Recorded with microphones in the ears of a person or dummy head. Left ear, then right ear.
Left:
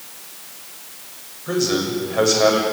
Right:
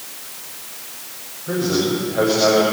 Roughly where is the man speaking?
Left.